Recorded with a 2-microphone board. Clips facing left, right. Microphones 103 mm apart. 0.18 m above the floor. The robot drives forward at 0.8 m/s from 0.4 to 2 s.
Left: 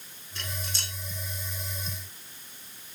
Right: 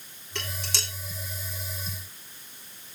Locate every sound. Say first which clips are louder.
0.3 s dishes clattering: right 3 dB; 75° right (ahead or behind), 7 m